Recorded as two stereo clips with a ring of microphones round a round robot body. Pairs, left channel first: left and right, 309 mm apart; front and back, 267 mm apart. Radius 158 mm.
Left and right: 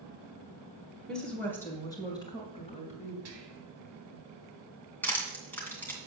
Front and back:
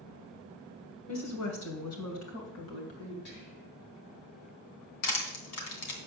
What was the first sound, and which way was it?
A woman speaking, straight ahead.